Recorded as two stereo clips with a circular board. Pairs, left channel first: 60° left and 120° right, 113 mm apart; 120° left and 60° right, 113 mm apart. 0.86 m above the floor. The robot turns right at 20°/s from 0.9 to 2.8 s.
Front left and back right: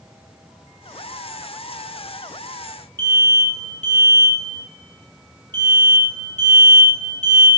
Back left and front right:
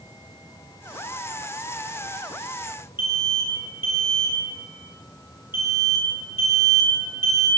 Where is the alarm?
Straight ahead, 1.8 m.